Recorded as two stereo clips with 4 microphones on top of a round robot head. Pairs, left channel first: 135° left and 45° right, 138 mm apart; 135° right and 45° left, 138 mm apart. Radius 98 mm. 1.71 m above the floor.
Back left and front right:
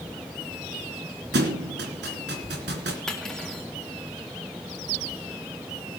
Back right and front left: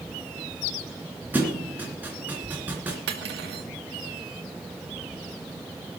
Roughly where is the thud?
Ahead right.